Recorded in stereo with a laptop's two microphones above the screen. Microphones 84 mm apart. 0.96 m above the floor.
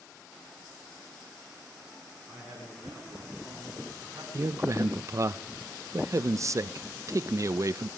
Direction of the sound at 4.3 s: 40° right (ahead or behind).